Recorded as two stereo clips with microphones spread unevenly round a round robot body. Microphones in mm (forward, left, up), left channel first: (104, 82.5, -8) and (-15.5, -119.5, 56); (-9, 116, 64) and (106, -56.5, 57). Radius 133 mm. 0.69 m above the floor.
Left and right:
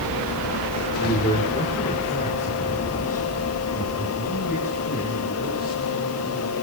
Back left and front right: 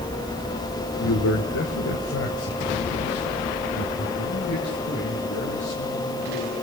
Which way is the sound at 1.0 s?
130° left.